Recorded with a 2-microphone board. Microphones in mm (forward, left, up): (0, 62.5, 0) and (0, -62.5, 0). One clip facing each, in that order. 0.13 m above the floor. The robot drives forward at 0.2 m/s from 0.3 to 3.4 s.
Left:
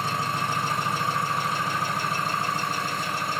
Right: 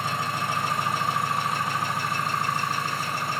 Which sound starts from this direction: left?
An engine running, at 0.0 s.